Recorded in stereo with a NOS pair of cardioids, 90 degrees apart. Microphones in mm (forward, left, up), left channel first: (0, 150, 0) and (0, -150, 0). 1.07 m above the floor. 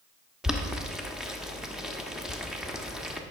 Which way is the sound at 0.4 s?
Straight ahead.